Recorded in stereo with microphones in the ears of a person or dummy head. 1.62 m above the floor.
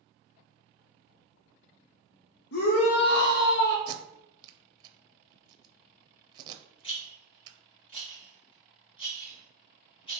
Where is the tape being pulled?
25° right (ahead or behind), 0.5 m.